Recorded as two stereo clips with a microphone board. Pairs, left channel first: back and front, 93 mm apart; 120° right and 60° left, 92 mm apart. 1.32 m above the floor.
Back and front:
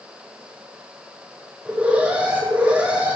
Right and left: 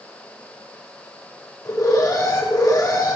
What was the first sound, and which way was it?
An alarm, 75° right.